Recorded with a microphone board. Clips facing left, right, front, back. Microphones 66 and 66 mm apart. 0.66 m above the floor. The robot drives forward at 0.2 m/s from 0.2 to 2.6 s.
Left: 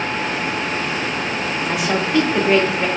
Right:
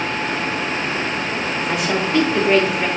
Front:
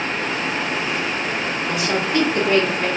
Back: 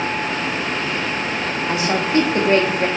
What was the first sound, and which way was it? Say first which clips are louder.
A woman speaking: left 1 dB, back 3 dB; 165° left.